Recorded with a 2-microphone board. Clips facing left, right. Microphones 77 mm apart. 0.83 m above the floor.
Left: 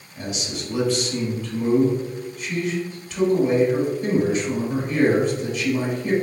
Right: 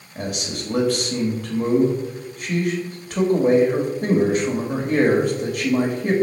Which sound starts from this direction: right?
A man speaking, at 0.1 s.